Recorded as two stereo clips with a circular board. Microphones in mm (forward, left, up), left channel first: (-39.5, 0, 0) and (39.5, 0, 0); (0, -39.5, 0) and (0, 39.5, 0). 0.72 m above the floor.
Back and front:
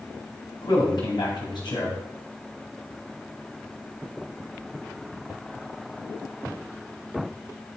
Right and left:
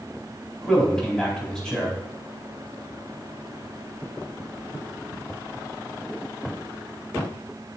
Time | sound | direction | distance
0.6 | a man speaking | 170° right | 4.5 m